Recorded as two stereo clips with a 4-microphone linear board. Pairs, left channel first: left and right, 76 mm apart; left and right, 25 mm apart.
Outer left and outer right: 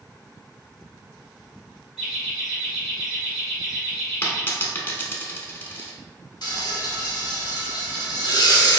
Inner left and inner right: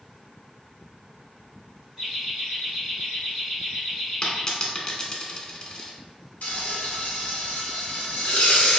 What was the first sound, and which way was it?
Laughter, 10° right (ahead or behind).